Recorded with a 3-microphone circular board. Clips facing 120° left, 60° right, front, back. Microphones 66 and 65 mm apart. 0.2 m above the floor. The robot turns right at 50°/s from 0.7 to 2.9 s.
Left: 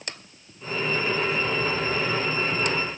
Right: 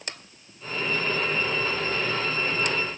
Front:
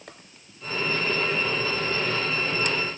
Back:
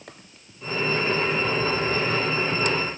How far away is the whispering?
I don't hear whispering.